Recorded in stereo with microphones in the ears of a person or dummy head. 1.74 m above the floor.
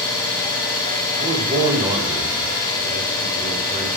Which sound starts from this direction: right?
A man speaking, at 1.1 s.